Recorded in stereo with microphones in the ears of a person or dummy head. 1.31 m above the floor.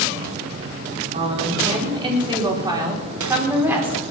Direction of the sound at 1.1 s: 40° right (ahead or behind).